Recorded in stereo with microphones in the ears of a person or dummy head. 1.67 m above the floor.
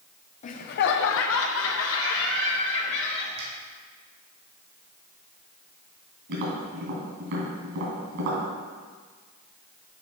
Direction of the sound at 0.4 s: 35° left (ahead or behind).